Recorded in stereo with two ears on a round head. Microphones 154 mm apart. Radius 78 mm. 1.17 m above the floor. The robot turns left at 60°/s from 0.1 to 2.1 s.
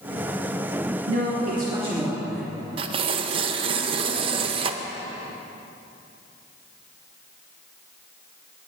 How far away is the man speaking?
About 2.5 m.